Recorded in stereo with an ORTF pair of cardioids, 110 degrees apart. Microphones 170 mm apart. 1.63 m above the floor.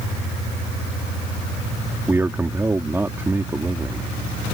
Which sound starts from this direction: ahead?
A man speaking, at 2.1 s.